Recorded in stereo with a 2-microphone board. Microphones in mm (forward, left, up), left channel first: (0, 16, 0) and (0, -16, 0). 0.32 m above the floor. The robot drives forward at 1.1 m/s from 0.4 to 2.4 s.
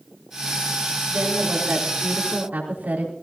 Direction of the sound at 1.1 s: 70° right (ahead or behind).